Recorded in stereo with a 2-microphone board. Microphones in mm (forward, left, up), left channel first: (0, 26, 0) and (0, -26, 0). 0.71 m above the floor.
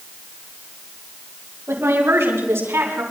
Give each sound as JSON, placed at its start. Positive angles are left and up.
{"t": 1.7, "sound": "a woman speaking", "side_deg": -55, "distance_m": 5.5}